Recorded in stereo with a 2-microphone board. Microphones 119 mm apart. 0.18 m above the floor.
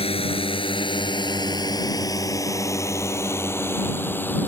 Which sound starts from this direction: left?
A drone, at 0.0 s.